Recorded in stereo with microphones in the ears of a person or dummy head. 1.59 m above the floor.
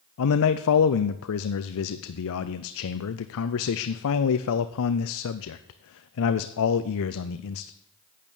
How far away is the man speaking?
About 0.6 m.